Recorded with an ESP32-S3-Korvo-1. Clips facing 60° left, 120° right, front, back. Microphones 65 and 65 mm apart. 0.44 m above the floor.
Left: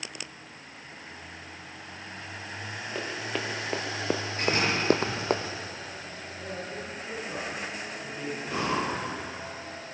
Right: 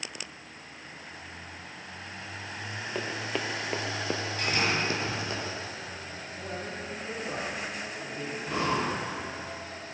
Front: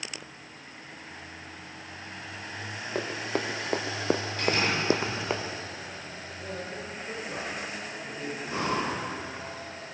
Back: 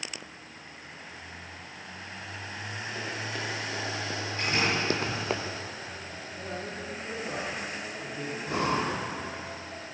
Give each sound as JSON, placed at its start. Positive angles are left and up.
{"t": 3.0, "sound": "running footsteps", "azimuth_deg": -30, "distance_m": 2.0}
{"t": 4.4, "sound": "a door slam", "azimuth_deg": 115, "distance_m": 6.0}
{"t": 6.3, "sound": "a man speaking", "azimuth_deg": -175, "distance_m": 6.5}
{"t": 8.4, "sound": "breathing", "azimuth_deg": 155, "distance_m": 6.0}